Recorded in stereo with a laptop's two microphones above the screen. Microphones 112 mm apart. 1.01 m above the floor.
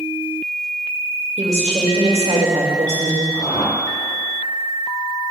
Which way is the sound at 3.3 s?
70° left (ahead or behind).